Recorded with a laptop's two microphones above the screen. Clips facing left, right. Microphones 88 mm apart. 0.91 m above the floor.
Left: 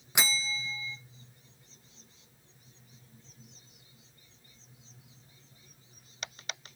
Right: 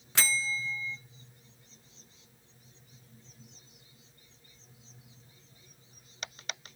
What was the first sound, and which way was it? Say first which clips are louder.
A bell: right 1 dB; 15° left (ahead or behind).